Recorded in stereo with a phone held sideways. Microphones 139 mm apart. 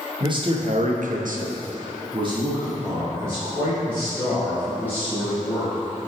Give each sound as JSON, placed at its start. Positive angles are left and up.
{"t": 0.2, "sound": "a man speaking", "side_deg": -30, "distance_m": 1.2}